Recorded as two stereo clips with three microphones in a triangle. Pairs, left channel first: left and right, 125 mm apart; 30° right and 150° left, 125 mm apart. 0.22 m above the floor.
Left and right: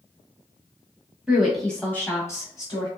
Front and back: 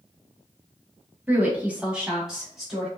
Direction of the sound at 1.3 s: 160° right.